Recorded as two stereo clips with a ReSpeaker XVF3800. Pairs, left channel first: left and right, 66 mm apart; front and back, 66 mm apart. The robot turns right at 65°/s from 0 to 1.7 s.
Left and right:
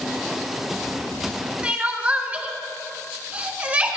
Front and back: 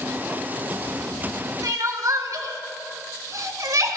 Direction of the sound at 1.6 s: 160° right.